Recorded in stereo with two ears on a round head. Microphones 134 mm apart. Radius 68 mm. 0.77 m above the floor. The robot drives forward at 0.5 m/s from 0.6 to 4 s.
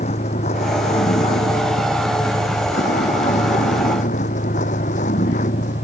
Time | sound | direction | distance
0.0 | a vehicle | 45° left (ahead or behind) | ?